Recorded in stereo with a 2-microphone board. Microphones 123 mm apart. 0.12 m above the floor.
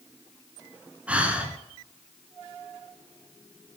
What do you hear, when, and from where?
1.1 s breathing: 10° right (ahead or behind), 1.1 m